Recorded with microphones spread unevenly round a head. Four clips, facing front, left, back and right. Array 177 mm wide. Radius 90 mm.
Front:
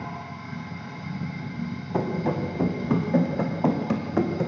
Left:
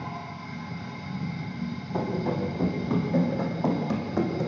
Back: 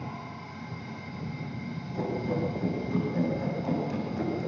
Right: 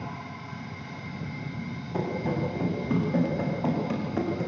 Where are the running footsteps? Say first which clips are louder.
Left 1 dB, front 4 dB; 5° left, 6 m; by 4.5 s 10° left, 4.5 m.